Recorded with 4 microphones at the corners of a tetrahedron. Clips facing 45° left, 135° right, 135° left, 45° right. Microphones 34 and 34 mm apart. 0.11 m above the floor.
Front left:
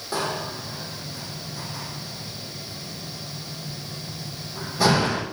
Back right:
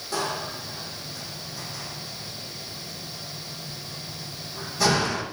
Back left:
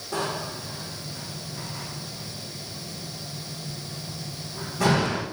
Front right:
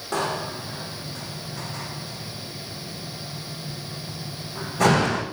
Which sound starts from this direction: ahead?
A door slam, at 0.1 s.